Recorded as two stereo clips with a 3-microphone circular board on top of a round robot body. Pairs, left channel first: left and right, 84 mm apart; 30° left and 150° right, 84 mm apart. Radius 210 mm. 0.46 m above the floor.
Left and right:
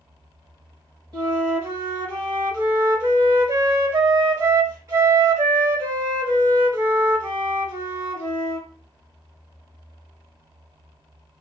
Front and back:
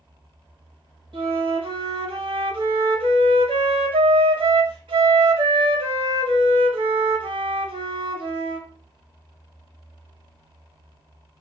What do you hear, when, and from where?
1.1 s a flute: 135° right, 0.8 m